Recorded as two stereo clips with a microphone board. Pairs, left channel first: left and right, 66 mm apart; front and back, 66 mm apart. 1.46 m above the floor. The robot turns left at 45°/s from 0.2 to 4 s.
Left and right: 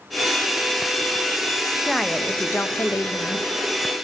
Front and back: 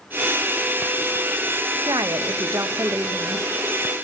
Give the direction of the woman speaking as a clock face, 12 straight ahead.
6 o'clock.